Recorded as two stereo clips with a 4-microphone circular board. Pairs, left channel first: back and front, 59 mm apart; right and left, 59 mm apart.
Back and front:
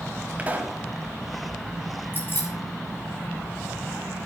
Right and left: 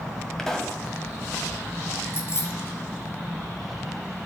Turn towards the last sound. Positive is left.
turn(degrees=-130)